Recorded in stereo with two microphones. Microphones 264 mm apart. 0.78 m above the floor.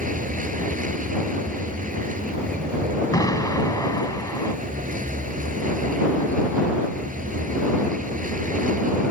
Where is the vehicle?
30° right (ahead or behind).